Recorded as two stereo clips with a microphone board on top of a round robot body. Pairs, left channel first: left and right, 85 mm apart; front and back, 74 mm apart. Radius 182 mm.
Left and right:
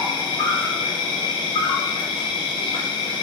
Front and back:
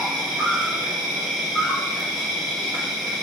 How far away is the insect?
About 1.6 m.